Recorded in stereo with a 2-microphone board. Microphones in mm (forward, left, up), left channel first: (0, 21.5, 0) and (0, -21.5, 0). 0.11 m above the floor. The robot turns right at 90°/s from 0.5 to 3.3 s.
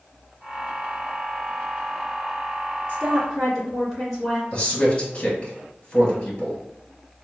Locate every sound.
2.9 s a woman speaking: 25° right (ahead or behind), 1.9 m; by 4.4 s 10° right (ahead or behind), 1.9 m
4.5 s a man speaking: 25° left (ahead or behind), 1.8 m